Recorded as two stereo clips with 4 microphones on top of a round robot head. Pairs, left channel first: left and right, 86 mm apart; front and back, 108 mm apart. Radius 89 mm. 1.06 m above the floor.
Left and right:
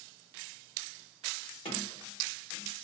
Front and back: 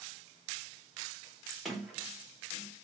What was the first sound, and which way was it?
A sliding door, 90° left.